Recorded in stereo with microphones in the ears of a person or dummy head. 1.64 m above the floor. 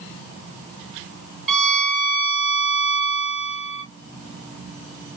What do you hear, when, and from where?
1.5 s a violin: centre (ahead or behind), 1.2 m